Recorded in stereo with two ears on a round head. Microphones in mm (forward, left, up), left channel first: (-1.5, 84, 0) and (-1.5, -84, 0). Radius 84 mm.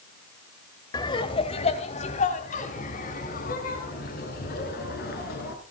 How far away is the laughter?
About 2 m.